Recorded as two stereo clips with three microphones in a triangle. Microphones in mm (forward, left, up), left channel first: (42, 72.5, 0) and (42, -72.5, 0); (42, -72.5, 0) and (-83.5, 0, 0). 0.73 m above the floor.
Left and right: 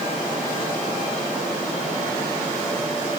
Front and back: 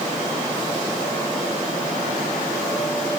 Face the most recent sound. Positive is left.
No sound to turn to.